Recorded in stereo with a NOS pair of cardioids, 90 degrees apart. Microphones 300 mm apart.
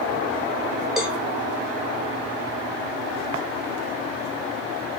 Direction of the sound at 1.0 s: Straight ahead.